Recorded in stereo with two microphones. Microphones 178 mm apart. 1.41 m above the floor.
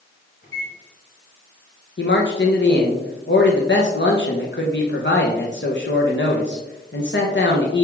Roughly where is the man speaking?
Left.